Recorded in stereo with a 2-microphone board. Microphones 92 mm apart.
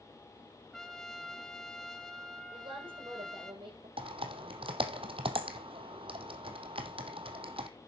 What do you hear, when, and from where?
0.7 s a trumpet: 5° left (ahead or behind), 1.0 m
2.5 s a woman speaking: 70° right (ahead or behind), 8.5 m
4.0 s typing on a keyboard: 80° right, 1.2 m